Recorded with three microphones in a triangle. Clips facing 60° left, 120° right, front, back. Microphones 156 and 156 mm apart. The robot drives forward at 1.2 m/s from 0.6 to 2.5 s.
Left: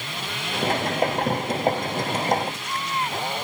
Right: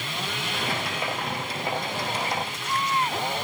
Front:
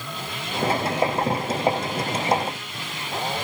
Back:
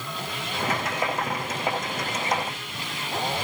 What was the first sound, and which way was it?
Only background noise.